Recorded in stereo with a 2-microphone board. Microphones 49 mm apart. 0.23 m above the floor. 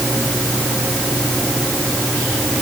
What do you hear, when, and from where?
Only background noise.